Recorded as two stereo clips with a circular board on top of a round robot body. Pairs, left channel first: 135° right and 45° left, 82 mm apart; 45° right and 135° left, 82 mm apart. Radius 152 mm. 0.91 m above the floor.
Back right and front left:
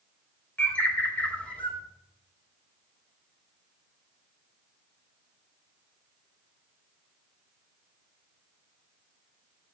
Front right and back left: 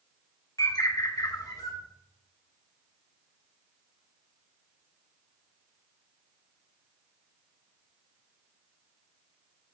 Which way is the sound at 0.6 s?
65° right.